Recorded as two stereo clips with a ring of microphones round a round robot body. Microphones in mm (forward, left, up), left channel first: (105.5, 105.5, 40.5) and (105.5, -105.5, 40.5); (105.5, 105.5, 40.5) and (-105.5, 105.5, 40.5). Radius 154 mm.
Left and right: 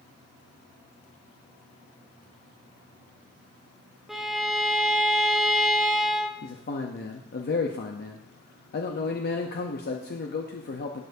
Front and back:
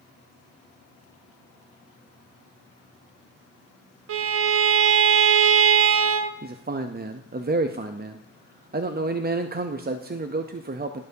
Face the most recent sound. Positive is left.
turn(degrees=135)